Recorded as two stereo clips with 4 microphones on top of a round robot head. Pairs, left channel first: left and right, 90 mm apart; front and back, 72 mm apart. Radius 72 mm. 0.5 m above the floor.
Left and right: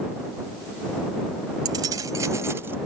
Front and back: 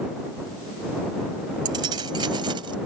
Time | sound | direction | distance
1.6 | keys jangling | 145° right | ?